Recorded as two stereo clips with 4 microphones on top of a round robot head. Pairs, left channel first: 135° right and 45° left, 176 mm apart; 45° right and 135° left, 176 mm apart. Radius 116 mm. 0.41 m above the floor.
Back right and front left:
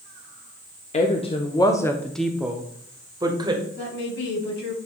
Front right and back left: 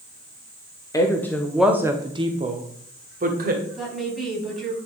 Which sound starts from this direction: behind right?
A woman speaking, at 3.7 s.